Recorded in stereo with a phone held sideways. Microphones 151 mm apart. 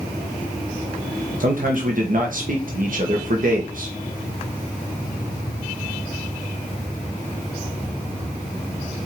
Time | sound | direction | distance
1.4 | a man speaking | 65° right (ahead or behind) | 1.4 m